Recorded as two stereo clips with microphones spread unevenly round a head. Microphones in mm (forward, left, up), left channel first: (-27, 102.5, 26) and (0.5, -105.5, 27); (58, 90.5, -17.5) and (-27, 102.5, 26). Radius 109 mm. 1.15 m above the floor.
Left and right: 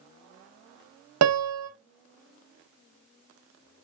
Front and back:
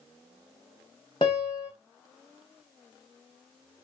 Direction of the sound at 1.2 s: 85° right.